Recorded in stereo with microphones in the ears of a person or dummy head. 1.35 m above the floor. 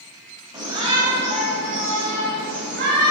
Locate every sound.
0.5 s a shout: 20° right (ahead or behind), 2.5 m; by 3.1 s 55° right (ahead or behind), 3 m